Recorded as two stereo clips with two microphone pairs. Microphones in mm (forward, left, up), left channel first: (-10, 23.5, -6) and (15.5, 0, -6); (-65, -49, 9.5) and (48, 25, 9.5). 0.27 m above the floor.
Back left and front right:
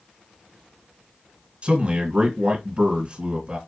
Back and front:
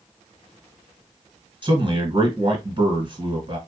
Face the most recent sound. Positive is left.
turn(degrees=5)